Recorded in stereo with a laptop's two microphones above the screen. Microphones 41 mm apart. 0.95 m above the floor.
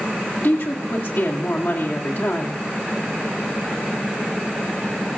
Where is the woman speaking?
65° left (ahead or behind), 2.0 m.